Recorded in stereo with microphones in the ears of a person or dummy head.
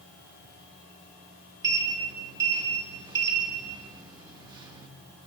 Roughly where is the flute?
I don't hear a flute.